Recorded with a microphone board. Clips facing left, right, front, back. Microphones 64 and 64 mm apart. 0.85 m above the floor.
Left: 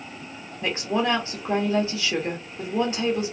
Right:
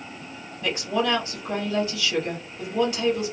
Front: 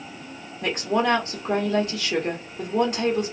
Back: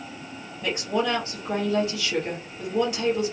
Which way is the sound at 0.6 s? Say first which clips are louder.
Even, front 3 dB; 35° left.